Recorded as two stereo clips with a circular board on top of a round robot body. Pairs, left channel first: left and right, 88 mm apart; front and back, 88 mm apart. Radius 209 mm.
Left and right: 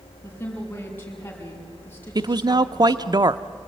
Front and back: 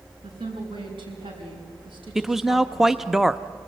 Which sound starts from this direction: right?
A man speaking, at 2.1 s.